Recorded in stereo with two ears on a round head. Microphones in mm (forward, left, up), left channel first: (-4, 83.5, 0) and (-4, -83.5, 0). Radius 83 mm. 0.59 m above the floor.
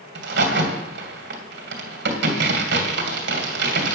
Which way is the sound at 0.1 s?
65° right (ahead or behind).